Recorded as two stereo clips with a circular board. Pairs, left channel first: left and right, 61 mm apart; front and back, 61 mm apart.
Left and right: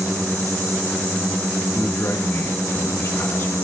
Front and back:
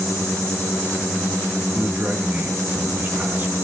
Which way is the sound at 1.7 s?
130° left.